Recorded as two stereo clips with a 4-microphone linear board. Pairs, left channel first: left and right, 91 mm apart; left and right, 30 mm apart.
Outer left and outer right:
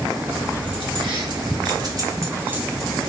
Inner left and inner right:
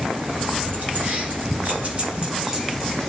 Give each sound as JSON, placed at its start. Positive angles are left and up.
{"t": 0.3, "sound": "keys jangling", "side_deg": -70, "distance_m": 1.7}